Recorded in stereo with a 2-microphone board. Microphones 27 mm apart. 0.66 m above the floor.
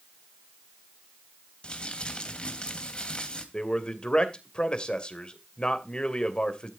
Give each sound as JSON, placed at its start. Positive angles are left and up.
{"t": 1.6, "sound": "crumpling", "side_deg": 40, "distance_m": 3.0}
{"t": 3.5, "sound": "a man speaking", "side_deg": 35, "distance_m": 2.5}